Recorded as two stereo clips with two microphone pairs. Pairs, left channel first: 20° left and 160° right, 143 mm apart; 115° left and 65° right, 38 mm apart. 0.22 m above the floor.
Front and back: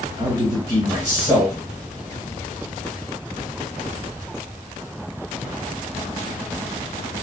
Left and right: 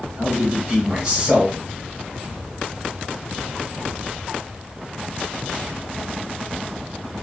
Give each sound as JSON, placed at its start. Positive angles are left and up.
{"t": 0.2, "sound": "a man speaking", "azimuth_deg": -120, "distance_m": 1.6}